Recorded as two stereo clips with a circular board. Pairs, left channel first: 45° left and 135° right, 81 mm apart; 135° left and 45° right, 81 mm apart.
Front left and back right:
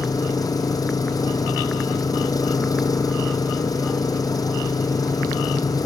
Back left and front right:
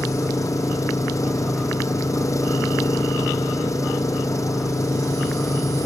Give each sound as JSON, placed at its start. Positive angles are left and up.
{"t": 0.0, "sound": "an engine running", "azimuth_deg": 85}